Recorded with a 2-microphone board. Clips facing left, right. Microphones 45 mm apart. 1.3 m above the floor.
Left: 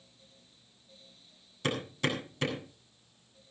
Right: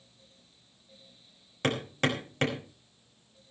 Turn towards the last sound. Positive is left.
turn(degrees=-60)  # may be behind; listen again after turning